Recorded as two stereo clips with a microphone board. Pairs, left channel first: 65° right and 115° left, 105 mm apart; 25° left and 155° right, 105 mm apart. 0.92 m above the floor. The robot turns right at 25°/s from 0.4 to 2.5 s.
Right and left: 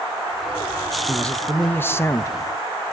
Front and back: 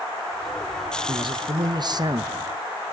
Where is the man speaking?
150° right, 0.7 m; by 2.5 s 110° right, 0.7 m.